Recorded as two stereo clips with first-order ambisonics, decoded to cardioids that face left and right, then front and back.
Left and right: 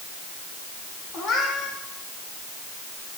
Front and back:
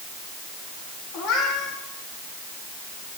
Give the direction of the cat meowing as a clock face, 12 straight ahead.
11 o'clock.